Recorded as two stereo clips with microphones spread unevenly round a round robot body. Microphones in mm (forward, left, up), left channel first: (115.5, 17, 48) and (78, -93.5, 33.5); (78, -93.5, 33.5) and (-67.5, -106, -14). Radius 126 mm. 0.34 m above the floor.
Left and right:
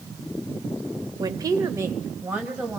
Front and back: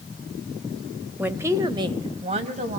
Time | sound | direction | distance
1.2 | a woman speaking | 125° right | 1.0 m